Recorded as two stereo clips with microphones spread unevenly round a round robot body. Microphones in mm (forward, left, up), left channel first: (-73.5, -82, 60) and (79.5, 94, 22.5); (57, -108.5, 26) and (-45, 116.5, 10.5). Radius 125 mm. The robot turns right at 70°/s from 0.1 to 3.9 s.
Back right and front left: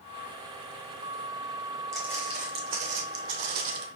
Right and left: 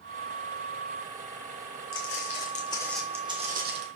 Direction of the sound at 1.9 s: 45° right.